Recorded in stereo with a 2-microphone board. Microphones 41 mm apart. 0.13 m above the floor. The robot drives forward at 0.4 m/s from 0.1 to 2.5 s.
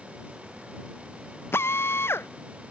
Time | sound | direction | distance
1.5 | a drill | 80° left | ?